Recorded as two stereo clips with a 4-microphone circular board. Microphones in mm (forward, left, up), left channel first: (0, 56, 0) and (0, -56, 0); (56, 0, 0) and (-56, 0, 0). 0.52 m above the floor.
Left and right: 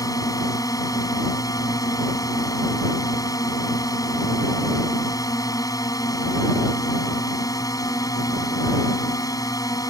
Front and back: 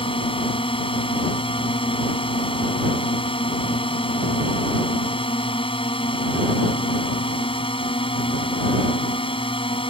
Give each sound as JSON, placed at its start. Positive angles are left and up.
{"t": 0.0, "sound": "a drone", "azimuth_deg": 35}